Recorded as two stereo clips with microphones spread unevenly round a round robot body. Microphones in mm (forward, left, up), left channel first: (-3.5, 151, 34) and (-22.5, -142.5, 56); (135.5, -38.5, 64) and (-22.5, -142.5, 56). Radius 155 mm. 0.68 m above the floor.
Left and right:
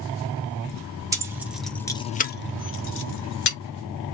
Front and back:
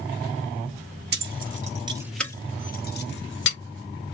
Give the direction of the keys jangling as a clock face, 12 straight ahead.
6 o'clock.